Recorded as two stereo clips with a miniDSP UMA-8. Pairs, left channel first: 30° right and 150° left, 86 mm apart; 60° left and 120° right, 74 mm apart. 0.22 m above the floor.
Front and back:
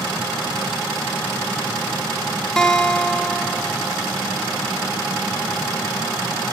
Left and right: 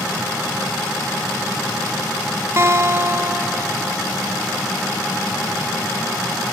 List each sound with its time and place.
2.6 s a guitar: 105° right, 1.2 m